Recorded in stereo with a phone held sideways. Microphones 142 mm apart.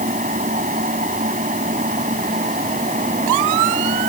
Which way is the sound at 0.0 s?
65° right (ahead or behind).